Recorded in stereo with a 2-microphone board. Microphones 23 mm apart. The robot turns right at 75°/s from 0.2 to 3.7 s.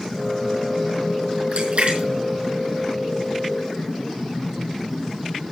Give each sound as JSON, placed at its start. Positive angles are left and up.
{"t": 1.5, "sound": "a splash", "side_deg": -75, "distance_m": 5.0}